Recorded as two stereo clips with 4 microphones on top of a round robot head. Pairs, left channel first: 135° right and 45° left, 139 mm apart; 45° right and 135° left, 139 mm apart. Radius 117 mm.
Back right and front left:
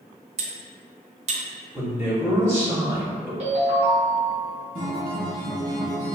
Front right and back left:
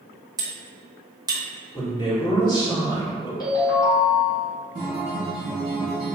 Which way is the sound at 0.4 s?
75° left.